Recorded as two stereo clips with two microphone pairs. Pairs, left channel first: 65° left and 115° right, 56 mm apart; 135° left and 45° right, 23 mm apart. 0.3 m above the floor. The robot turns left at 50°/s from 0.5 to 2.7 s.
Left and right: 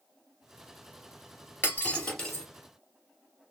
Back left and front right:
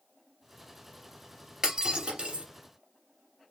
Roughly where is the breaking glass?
Ahead.